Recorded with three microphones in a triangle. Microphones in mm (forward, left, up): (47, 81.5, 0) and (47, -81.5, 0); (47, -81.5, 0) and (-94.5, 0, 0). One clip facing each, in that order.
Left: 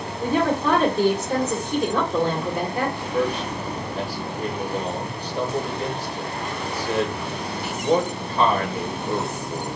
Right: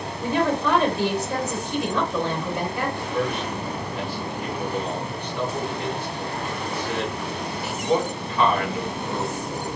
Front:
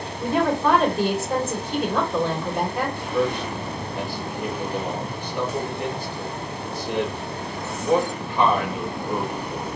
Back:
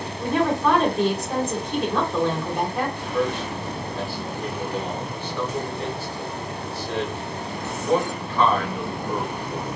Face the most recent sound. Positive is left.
turn(degrees=40)